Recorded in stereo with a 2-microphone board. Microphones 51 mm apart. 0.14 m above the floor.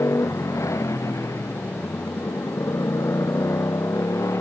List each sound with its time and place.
0.0 s a motorcycle: 85° left